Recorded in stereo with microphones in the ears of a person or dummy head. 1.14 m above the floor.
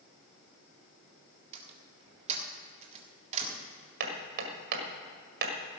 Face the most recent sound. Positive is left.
turn(degrees=-60)  # may be behind; listen again after turning